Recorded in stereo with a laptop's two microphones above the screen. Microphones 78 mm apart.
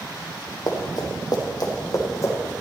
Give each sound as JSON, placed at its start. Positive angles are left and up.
{"t": 0.7, "sound": "running footsteps", "side_deg": 55, "distance_m": 1.8}